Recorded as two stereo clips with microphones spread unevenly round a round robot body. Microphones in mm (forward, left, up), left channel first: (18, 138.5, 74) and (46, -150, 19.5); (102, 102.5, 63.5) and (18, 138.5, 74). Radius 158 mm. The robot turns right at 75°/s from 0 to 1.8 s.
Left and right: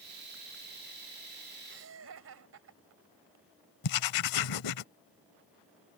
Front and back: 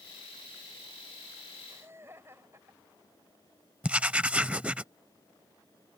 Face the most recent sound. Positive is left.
turn(degrees=80)